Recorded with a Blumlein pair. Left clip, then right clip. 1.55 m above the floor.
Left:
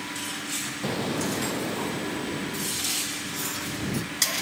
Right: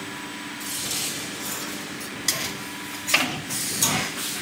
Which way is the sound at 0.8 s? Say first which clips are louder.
Left 1 dB; 60° left.